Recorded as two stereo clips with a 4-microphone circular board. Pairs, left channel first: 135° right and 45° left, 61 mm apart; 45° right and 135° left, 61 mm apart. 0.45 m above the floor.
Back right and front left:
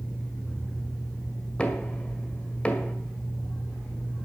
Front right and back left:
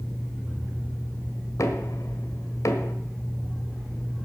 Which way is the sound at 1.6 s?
65° right.